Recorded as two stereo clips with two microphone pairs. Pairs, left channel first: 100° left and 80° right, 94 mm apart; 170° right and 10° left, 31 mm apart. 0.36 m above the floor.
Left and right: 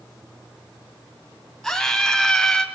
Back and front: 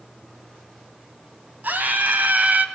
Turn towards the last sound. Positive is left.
turn(degrees=15)